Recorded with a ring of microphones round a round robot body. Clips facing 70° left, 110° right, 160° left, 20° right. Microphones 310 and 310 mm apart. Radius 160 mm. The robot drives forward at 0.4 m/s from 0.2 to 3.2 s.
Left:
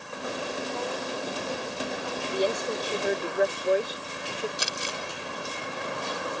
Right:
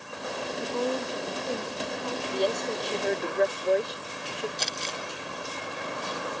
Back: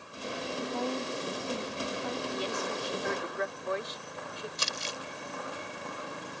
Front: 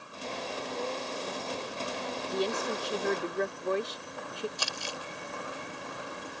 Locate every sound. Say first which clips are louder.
0.6 s a woman speaking: right 8 dB, back 4 dB; 170° right
2.3 s a woman speaking: left 1 dB, front 3 dB; 10° right; by 4.5 s 15° right
4.6 s crumpling: left 1 dB, even; 135° left